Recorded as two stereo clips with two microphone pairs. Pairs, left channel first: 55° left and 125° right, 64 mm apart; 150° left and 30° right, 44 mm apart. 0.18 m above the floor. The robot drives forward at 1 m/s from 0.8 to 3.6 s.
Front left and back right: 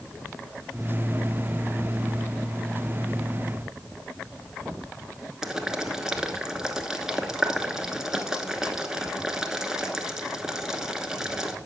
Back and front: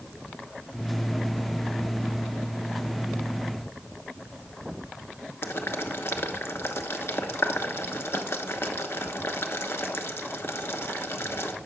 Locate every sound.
5.4 s boiling: 155° left, 0.9 m